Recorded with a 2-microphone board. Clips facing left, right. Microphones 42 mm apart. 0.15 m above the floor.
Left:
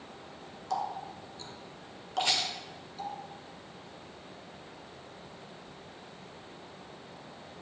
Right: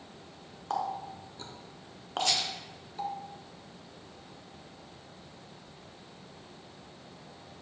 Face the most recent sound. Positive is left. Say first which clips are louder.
# even
turn(degrees=25)  # may be behind; listen again after turning